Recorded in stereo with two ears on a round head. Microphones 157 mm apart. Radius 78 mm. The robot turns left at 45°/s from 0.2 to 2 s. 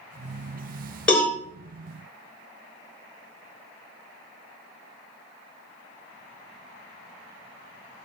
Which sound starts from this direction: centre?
A cowbell, at 1.1 s.